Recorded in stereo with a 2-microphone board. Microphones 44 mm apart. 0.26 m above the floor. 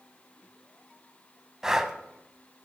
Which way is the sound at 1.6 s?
10° right (ahead or behind).